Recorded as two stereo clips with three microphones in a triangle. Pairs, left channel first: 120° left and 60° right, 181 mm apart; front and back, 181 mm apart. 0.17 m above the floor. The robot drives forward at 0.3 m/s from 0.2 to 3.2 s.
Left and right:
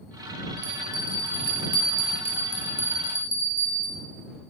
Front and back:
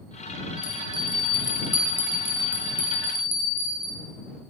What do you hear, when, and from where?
0.6 s a bell: 55° right, 2.0 m; by 3.9 s 90° right, 1.8 m